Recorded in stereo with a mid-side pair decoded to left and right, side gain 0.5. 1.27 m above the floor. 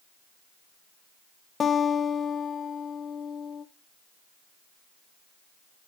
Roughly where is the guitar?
Ahead left.